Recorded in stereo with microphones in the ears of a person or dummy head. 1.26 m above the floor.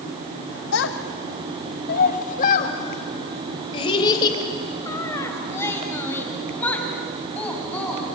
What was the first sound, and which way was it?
A child speaking, 70° left (ahead or behind).